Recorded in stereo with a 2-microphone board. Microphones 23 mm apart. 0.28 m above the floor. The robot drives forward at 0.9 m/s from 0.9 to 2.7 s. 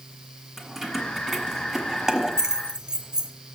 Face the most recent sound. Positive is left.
turn(degrees=-40)  # may be behind; listen again after turning